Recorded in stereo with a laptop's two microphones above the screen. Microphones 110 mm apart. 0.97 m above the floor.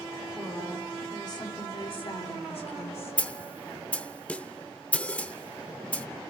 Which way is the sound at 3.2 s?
15° left (ahead or behind).